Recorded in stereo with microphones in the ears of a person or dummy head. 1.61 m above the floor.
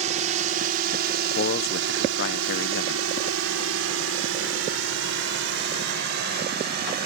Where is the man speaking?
65° left (ahead or behind).